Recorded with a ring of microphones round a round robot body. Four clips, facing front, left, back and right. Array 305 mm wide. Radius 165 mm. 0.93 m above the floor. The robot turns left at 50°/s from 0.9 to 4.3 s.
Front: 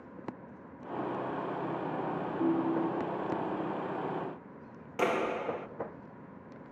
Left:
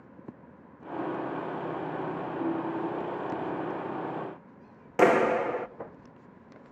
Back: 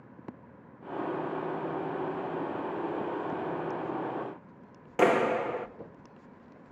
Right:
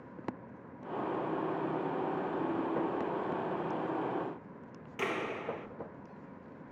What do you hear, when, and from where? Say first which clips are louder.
2.4 s a ringtone: left 5 dB, front 4 dB; 35° left, 2.5 m; by 3.2 s straight ahead, 2.5 m
5.0 s a clap: left 14 dB, back 6 dB; 115° left, 1.4 m